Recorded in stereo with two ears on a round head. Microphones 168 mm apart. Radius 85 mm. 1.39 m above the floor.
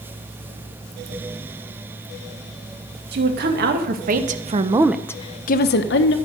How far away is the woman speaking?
About 1.8 m.